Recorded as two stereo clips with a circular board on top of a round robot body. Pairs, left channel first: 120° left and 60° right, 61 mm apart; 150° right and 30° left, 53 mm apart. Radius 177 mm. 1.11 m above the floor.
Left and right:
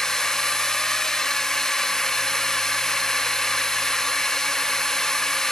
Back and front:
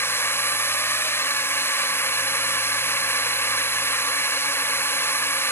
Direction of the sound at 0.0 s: 160° right.